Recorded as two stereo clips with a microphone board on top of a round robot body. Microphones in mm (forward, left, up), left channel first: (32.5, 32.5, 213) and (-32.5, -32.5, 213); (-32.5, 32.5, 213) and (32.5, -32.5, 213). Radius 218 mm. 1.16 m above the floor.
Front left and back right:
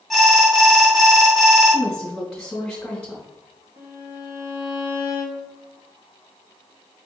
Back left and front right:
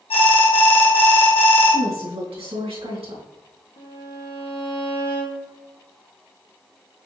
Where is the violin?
160° left, 1.5 m.